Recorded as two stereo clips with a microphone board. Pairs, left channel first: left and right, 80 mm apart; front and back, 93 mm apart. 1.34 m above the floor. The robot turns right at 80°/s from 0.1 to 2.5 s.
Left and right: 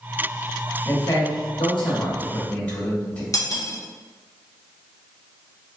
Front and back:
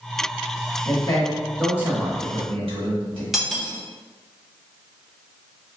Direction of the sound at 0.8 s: 35° left.